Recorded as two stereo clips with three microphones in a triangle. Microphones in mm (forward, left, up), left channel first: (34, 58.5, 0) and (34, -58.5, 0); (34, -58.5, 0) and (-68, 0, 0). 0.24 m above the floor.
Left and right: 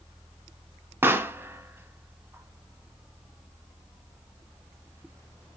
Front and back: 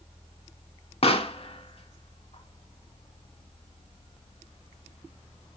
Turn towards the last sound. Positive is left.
turn(degrees=-20)